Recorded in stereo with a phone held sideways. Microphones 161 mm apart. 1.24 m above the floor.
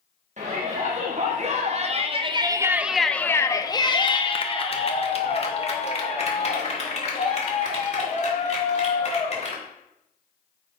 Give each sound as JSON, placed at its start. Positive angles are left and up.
{"t": 0.4, "sound": "a shout", "side_deg": -45, "distance_m": 1.7}